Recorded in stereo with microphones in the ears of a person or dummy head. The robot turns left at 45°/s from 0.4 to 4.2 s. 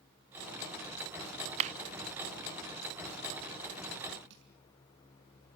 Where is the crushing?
60° right (ahead or behind), 5.5 m.